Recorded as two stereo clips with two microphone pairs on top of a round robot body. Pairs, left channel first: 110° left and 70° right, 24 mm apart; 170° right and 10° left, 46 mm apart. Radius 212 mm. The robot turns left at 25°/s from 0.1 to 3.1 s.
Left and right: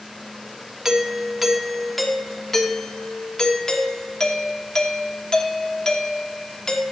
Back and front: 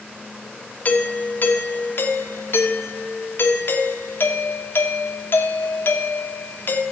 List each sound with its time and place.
0.8 s a doorbell: 130° right, 1.6 m; by 6.8 s 170° left, 1.6 m